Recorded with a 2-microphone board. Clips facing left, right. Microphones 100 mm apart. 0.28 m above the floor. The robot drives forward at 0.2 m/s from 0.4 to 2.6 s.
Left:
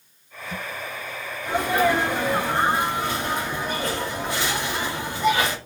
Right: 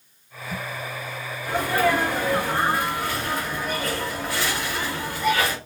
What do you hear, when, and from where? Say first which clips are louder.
1.4 s a sneeze: left 1 dB; 20° left (ahead or behind), 1.1 m